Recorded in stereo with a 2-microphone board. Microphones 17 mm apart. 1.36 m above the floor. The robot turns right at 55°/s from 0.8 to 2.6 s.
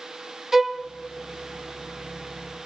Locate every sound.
0.5 s a violin: 20° right (ahead or behind), 1.5 m